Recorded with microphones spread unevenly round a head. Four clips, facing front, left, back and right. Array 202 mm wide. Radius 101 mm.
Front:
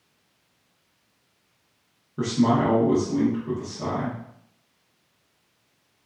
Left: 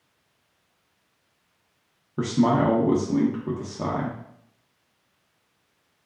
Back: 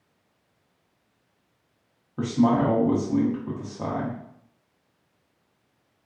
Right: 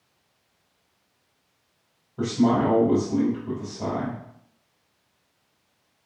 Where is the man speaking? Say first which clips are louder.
Even, even; 90° left, 0.9 m.